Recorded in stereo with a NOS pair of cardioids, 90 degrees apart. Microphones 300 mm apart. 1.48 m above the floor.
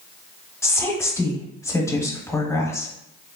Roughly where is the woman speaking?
Ahead.